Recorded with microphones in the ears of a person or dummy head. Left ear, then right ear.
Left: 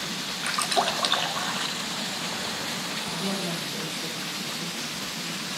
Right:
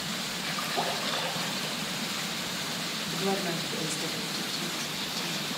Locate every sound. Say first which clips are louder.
0.4 s a splash: left 7 dB; 55° left (ahead or behind), 2.5 m
3.1 s a woman speaking: even; 55° right (ahead or behind), 4.5 m